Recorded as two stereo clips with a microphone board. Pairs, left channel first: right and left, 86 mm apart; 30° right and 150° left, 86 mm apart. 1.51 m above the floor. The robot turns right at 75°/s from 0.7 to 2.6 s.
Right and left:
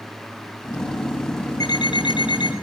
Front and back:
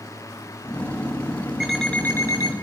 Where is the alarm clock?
130° right, 8 m; by 2.5 s 60° right, 8 m.